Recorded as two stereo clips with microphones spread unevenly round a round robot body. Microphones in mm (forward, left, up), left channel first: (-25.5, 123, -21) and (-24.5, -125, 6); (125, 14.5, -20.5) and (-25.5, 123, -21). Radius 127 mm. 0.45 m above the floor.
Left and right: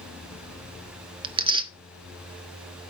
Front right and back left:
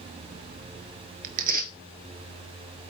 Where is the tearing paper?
160° right, 0.9 m.